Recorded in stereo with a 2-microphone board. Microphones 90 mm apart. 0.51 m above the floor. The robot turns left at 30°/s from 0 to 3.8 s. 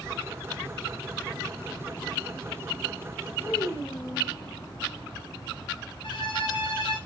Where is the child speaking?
30° left (ahead or behind), 1.8 m; by 4.3 s 40° left (ahead or behind), 1.8 m.